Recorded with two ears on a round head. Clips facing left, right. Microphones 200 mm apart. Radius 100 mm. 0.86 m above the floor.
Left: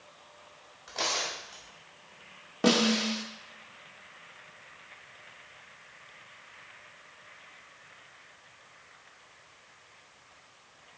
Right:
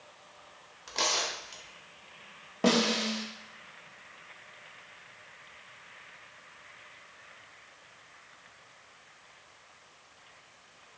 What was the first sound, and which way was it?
Tearing paper, 40° right (ahead or behind).